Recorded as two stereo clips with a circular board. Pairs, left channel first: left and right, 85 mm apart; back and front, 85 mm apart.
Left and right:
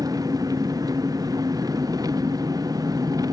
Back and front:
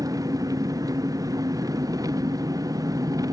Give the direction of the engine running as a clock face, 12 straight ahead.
2 o'clock.